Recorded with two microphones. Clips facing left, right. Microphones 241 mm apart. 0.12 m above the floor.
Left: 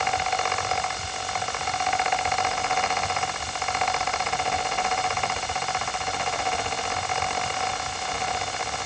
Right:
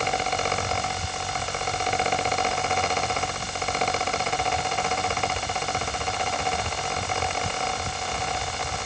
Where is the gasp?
I don't hear a gasp.